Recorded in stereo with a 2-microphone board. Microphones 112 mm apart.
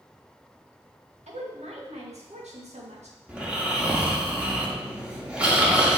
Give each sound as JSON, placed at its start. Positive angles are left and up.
{"t": 1.3, "sound": "a woman speaking", "side_deg": -85, "distance_m": 2.0}
{"t": 3.3, "sound": "snoring", "side_deg": -10, "distance_m": 1.8}